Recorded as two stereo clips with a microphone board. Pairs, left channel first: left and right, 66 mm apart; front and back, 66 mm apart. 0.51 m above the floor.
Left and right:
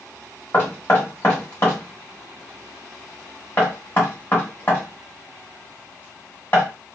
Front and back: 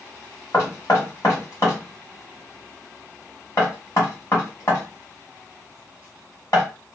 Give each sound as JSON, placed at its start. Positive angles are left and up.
{"t": 0.5, "sound": "knocking", "azimuth_deg": 35, "distance_m": 1.3}